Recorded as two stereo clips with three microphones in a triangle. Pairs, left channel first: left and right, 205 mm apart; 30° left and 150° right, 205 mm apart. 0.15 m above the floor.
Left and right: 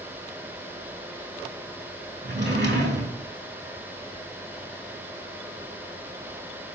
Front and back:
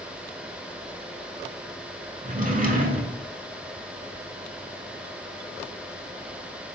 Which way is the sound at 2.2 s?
105° right.